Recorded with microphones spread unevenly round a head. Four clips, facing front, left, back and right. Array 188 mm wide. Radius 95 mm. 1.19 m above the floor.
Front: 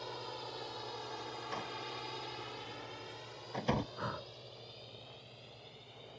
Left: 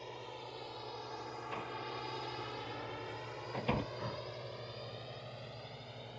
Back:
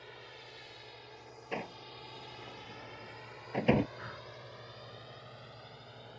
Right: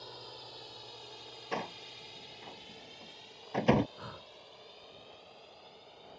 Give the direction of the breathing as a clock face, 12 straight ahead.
11 o'clock.